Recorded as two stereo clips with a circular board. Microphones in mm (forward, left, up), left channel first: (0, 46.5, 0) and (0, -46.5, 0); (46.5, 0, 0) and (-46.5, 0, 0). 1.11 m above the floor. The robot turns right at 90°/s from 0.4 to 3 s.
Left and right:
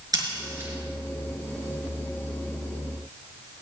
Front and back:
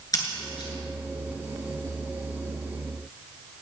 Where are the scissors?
45° right, 3 m; by 0.7 s 20° right, 3 m.